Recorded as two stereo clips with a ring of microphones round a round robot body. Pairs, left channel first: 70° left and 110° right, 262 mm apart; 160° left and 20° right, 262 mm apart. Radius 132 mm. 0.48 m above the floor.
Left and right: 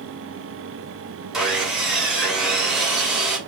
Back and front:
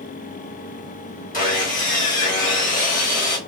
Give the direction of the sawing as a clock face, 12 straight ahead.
7 o'clock.